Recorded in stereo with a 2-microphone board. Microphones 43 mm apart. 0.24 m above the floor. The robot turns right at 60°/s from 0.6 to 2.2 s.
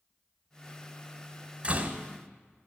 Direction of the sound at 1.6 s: 30° right (ahead or behind).